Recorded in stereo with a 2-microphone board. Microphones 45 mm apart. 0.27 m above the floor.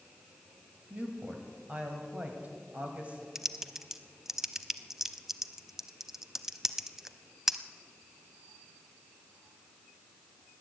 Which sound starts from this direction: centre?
Typing on a keyboard, at 3.4 s.